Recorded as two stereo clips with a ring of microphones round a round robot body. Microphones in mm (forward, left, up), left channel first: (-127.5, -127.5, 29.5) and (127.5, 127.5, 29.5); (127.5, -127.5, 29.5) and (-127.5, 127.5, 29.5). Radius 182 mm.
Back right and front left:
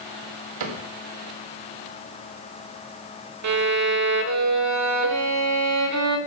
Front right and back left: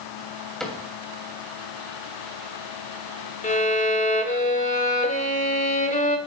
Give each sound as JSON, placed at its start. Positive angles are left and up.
{"t": 0.6, "sound": "a cupboard door", "azimuth_deg": 45, "distance_m": 3.0}
{"t": 3.4, "sound": "a violin", "azimuth_deg": 20, "distance_m": 1.5}